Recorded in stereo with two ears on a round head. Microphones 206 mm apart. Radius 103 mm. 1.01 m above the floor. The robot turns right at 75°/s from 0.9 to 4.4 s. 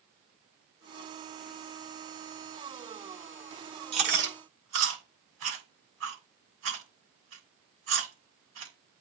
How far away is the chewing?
About 7 m.